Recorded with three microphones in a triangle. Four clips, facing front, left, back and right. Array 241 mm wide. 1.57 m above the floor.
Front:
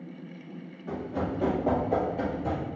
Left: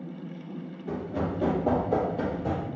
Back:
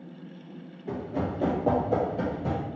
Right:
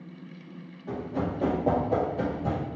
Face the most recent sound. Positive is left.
turn(degrees=-120)